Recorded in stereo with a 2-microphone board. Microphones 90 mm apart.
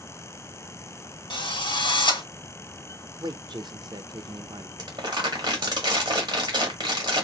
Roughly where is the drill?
Left.